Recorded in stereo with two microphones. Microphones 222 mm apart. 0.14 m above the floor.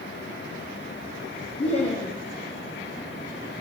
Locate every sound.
1.6 s laughter: 25° left (ahead or behind), 2.5 m